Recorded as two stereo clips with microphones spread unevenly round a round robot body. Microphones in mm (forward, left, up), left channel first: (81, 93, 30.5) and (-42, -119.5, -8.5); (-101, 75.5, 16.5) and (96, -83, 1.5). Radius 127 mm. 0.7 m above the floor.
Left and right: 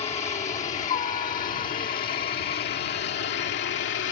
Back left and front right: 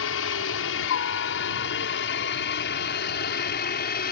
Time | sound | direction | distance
0.0 | a helicopter | 125° left | ?